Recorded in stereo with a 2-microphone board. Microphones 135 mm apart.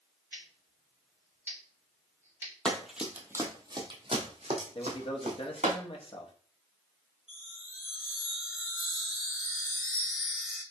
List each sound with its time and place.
0.3 s scissors: 20° right (ahead or behind), 2.5 m
2.6 s running footsteps: 5° left (ahead or behind), 1.1 m; by 5.8 s 70° right (ahead or behind), 2 m
4.8 s a man speaking: 45° left (ahead or behind), 0.9 m
7.3 s a chime: 5° right (ahead or behind), 2.5 m